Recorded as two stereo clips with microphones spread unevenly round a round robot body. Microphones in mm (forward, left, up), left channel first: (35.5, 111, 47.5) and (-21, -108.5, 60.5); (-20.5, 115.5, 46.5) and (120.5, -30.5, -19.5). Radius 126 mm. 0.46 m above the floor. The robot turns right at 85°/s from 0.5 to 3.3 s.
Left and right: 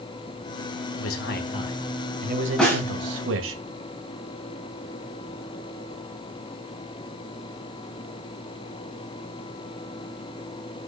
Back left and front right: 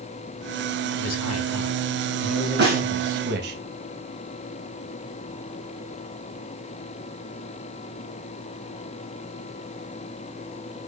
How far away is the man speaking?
About 2 m.